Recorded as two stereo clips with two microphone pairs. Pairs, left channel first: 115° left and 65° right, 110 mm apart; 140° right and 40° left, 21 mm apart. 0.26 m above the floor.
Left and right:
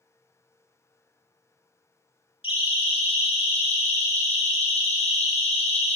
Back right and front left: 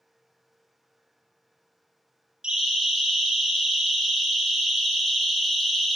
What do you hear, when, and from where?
2.4 s a siren: 85° left, 7.5 m; by 6.0 s 125° left, 6 m